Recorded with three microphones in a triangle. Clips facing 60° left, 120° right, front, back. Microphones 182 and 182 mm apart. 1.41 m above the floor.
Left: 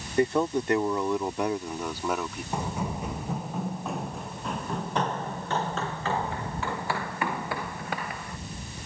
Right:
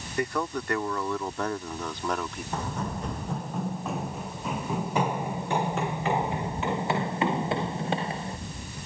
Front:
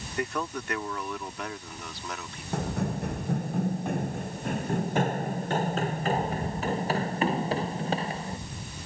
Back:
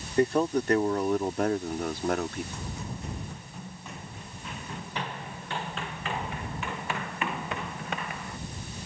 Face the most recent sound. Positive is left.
turn(degrees=-60)